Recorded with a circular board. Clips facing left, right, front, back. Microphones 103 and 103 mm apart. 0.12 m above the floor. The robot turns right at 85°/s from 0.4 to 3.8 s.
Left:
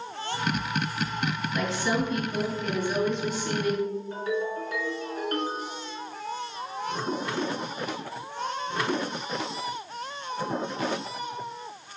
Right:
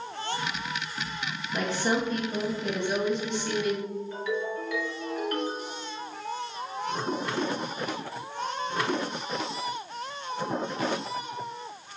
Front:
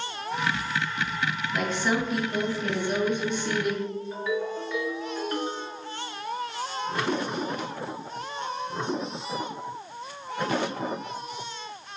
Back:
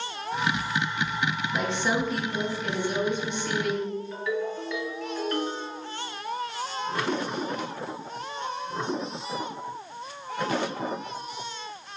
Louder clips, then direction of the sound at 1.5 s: Right 2 dB, front 1 dB; 140° right.